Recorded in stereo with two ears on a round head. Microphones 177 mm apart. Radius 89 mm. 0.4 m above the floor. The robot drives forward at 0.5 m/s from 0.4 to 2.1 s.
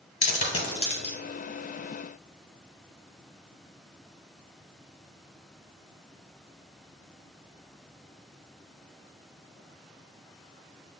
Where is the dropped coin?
35° left (ahead or behind), 1.4 m; by 1.1 s 30° left (ahead or behind), 1.7 m.